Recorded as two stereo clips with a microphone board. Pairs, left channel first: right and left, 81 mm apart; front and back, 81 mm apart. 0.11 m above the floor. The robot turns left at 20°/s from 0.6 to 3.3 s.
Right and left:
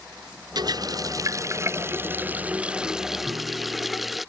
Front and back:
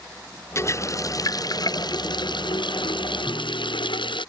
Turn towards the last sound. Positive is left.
turn(degrees=70)